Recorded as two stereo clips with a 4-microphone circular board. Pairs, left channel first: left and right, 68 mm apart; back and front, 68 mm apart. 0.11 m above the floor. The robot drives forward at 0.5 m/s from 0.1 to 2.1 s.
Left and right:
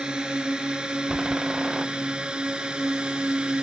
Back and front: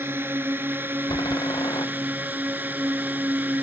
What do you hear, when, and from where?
0.0 s a drone: 20° right; by 3.6 s 30° right
1.1 s a door slam: 170° right